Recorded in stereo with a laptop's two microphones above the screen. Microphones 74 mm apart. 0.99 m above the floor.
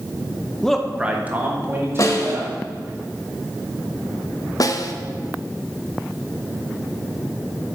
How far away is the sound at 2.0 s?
About 1.3 m.